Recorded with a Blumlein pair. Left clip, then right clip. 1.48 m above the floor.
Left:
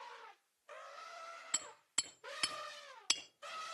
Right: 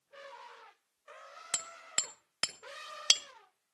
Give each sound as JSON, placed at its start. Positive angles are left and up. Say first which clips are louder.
{"t": 1.5, "sound": "hammering", "louder": "right 5 dB", "azimuth_deg": -60, "distance_m": 1.6}